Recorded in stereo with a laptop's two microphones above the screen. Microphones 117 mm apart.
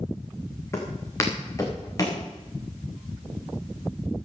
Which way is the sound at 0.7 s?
25° left (ahead or behind).